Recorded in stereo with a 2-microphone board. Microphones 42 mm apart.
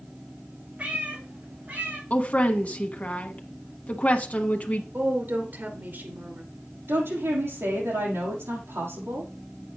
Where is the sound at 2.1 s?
35° left (ahead or behind), 1.2 m.